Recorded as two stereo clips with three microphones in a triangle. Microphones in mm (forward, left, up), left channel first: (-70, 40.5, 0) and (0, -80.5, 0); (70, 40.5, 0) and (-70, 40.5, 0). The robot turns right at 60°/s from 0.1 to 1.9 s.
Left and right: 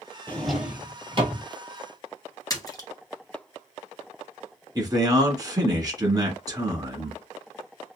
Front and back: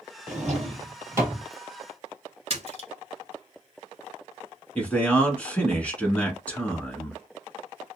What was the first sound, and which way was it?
A drawer, 165° right.